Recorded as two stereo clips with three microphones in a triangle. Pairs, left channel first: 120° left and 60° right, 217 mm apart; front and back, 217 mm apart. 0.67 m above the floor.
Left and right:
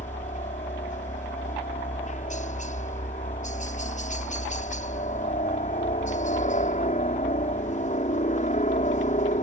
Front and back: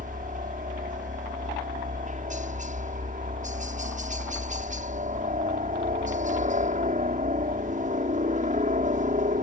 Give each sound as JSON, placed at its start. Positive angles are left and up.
{"t": 0.0, "sound": "a helicopter", "azimuth_deg": 150}